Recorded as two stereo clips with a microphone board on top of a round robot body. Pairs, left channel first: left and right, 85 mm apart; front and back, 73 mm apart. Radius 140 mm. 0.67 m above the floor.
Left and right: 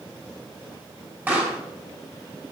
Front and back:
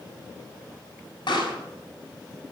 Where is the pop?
20° right, 7.5 m.